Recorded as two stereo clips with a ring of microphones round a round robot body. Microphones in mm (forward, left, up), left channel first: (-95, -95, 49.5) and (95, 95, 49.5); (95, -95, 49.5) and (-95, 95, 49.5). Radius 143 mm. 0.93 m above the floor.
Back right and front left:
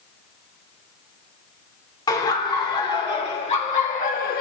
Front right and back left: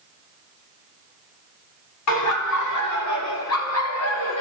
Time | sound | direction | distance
2.1 | laughter | 60° right | 3 m